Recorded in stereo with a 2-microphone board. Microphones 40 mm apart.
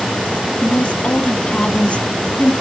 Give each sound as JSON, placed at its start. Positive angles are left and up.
{"t": 0.6, "sound": "a woman speaking", "side_deg": 30, "distance_m": 1.6}